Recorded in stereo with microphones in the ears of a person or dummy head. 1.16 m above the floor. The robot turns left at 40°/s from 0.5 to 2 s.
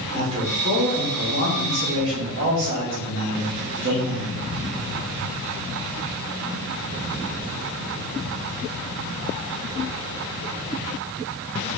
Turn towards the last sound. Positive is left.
turn(degrees=-95)